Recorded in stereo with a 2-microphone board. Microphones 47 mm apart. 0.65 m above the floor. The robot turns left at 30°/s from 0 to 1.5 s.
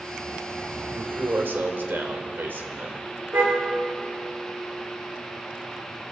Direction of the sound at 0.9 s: 65° right (ahead or behind).